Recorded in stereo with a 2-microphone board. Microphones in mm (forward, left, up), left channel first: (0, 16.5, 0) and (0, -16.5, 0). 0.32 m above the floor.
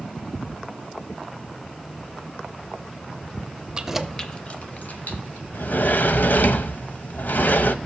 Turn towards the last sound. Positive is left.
turn(degrees=65)  # may be behind; listen again after turning